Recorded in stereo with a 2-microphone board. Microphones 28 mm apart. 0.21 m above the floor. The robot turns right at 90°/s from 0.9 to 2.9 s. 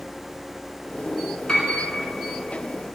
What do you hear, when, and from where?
1.5 s a piano: 30° left (ahead or behind), 1.6 m; by 1.7 s 45° left (ahead or behind), 1.6 m